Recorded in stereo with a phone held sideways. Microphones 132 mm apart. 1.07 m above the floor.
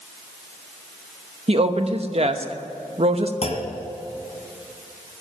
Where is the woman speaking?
50° right (ahead or behind), 1.0 m.